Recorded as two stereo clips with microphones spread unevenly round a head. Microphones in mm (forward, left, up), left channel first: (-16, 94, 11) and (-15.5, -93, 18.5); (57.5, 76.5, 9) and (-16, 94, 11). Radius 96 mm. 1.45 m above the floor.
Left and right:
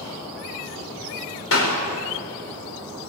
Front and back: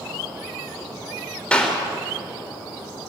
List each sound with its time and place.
1.5 s a clap: 65° left, 5 m